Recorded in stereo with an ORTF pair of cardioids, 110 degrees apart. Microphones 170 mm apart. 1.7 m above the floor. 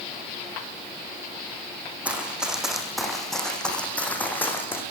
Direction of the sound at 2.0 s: 5° right.